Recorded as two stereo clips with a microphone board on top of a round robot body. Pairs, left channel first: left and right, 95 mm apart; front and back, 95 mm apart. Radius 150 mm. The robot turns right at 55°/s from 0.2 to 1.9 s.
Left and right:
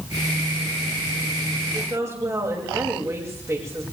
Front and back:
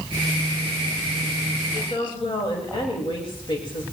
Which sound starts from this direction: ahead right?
A woman speaking, at 1.7 s.